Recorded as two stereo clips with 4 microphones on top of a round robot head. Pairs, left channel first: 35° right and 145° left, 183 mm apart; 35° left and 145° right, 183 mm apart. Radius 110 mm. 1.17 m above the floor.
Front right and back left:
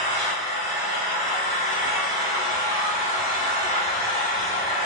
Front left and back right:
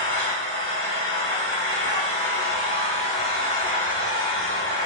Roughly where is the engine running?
Behind right.